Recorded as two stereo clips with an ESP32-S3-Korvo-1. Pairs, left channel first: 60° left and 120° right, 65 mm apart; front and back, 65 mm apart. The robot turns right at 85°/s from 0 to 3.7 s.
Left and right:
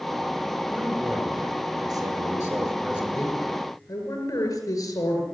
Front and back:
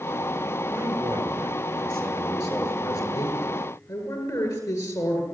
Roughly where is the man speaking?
Behind left.